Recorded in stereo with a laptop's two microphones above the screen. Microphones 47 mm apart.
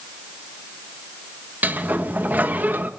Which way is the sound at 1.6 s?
40° right (ahead or behind).